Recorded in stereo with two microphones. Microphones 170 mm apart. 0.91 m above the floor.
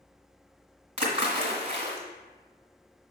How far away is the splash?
About 1.5 m.